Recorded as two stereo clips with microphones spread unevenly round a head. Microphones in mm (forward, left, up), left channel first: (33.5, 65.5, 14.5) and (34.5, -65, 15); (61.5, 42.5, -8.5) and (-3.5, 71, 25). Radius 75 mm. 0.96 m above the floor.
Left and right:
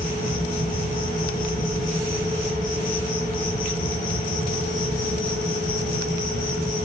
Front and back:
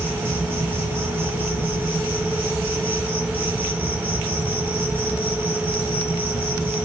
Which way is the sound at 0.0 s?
85° left.